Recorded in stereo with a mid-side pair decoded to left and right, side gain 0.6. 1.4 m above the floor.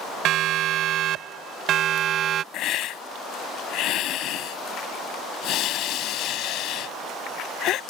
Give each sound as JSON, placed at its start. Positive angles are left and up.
{"t": 0.2, "sound": "a siren", "azimuth_deg": -60}
{"t": 2.5, "sound": "a hiss", "azimuth_deg": 60}